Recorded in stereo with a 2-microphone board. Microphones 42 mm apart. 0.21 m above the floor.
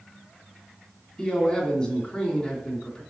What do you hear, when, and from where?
1.2 s a man speaking: 15° left (ahead or behind), 2.5 m